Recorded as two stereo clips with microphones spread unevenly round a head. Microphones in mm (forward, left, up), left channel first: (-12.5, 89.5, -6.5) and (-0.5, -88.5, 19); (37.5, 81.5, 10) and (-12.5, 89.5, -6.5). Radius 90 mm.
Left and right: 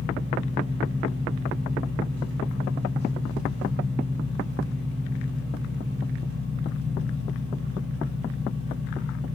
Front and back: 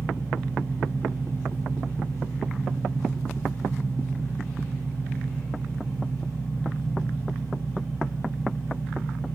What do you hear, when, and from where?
0.0 s an engine running: 60° right, 2.0 m